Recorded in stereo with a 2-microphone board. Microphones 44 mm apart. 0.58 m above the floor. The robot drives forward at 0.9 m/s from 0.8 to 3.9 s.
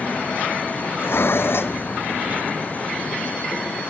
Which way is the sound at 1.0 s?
60° left (ahead or behind).